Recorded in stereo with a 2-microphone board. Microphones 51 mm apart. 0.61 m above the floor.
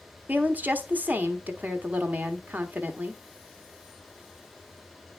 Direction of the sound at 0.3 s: 35° right (ahead or behind).